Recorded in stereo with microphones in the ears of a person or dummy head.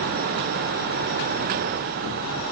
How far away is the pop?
No pop in this recording.